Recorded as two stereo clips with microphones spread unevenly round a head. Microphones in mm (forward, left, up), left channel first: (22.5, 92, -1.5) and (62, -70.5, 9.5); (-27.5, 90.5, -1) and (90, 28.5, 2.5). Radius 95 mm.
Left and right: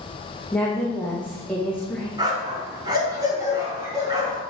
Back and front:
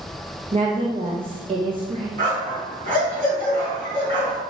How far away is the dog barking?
About 4 m.